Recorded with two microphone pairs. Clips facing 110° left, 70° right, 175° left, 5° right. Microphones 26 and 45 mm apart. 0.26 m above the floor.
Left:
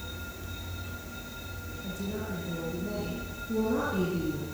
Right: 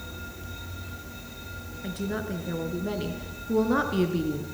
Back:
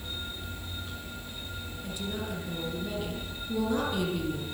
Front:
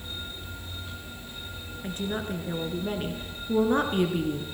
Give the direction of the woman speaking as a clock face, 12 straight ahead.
2 o'clock.